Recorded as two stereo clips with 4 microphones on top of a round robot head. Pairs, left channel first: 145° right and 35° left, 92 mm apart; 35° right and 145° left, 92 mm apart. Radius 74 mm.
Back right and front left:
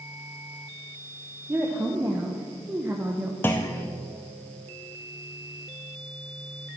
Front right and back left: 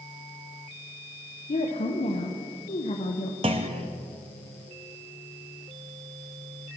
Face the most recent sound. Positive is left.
turn(degrees=155)